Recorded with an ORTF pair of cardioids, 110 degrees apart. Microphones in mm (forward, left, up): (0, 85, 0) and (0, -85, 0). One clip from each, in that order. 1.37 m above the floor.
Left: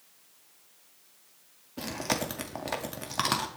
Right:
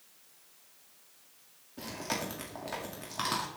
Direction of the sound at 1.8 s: 40° left.